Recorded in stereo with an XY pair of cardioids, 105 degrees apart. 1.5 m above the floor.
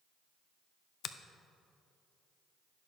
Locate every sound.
1.0 s a finger snap: 65° left, 0.6 m